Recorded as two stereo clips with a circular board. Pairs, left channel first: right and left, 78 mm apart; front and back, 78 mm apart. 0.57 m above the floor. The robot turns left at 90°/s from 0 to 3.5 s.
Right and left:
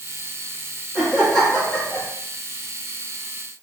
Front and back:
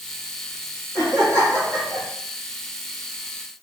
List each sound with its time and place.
0.9 s laughter: 15° left, 1.0 m; by 2.1 s 85° right, 1.0 m